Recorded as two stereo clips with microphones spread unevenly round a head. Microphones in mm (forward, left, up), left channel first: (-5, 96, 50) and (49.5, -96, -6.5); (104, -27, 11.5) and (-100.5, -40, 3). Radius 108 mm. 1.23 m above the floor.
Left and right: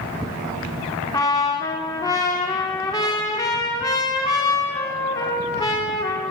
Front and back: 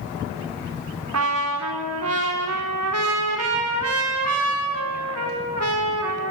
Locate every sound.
1.1 s a trumpet: straight behind, 4.5 m